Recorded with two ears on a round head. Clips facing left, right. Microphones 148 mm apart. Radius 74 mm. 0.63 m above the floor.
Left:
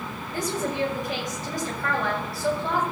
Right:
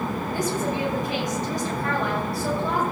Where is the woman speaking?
60° left (ahead or behind), 9 m.